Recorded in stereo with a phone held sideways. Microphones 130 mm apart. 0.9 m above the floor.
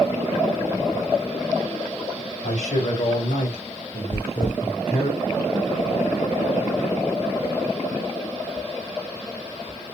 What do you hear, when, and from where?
2.4 s a man speaking: 85° left, 3.5 m; by 5.1 s 60° left (ahead or behind), 2.5 m
4.1 s chewing: 75° left (ahead or behind), 2.0 m